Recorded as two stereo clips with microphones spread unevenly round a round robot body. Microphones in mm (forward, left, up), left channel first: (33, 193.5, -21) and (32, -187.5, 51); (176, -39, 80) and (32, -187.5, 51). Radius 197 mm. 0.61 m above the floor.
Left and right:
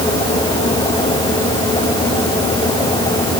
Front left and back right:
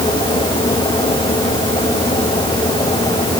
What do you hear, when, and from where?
Only background noise.